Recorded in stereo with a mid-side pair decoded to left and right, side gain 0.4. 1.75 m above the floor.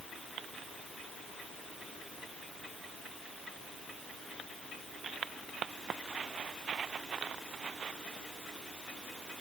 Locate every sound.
Only background noise.